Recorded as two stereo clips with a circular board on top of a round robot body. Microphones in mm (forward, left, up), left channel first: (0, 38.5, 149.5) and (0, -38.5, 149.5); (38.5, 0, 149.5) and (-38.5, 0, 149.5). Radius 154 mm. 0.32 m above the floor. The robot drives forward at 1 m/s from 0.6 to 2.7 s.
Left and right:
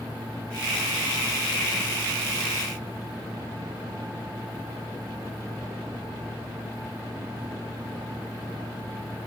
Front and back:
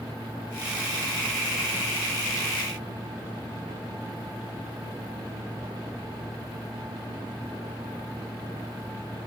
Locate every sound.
Only background noise.